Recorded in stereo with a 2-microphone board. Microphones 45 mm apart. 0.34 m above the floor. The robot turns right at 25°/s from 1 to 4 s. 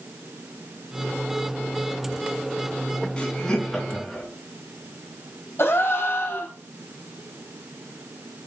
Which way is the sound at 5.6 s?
70° left (ahead or behind).